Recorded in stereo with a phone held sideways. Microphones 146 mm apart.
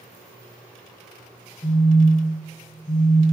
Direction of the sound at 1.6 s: 40° left (ahead or behind).